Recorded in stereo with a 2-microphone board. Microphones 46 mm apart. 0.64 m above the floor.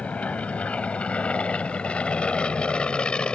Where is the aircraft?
25° left (ahead or behind); by 3.4 s 20° left (ahead or behind).